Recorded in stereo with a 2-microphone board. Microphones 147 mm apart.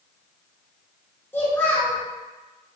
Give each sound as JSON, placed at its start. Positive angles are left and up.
{"t": 1.3, "sound": "a child speaking", "side_deg": 15, "distance_m": 1.0}